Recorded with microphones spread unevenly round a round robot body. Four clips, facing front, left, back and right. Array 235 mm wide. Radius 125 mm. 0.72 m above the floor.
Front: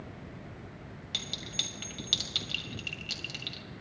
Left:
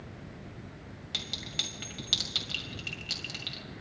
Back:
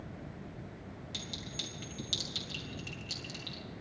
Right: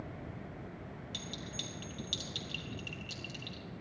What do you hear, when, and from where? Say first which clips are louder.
1.1 s a clink: left 4 dB, front 3 dB; 55° left, 2.5 m